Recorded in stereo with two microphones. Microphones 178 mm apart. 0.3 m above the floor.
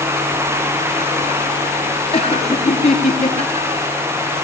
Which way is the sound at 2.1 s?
35° left (ahead or behind).